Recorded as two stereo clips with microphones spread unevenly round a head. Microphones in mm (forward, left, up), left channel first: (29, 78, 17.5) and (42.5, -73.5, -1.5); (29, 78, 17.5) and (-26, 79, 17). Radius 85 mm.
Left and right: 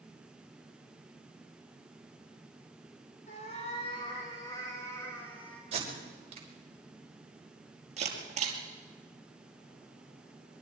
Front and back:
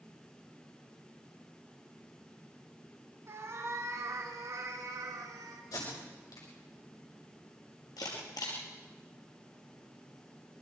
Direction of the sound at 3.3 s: 145° left.